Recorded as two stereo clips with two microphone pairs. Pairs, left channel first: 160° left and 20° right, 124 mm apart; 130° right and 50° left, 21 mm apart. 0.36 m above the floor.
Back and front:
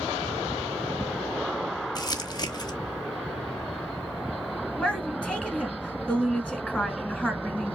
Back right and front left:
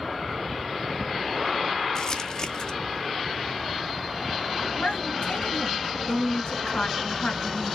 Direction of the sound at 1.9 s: 170° right.